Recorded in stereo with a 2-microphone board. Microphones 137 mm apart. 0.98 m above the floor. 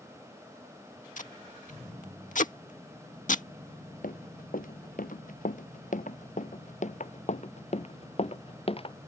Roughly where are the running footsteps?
Left.